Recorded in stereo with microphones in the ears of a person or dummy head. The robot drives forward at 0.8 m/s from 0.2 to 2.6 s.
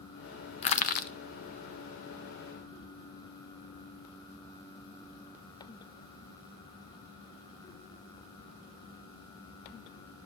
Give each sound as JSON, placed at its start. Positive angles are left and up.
{"t": 0.6, "sound": "crushing", "side_deg": 35, "distance_m": 0.6}